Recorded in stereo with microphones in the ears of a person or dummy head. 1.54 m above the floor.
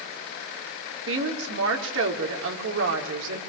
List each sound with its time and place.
1.1 s a woman speaking: 65° right (ahead or behind), 4 m